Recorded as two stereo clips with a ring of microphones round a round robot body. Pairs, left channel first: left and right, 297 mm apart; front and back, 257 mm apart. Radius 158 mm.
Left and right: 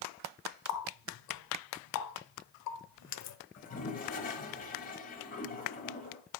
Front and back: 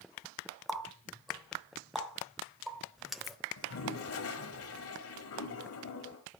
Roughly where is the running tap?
Left.